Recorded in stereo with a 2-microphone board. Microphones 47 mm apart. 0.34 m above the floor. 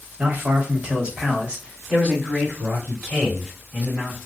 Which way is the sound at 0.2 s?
40° right (ahead or behind).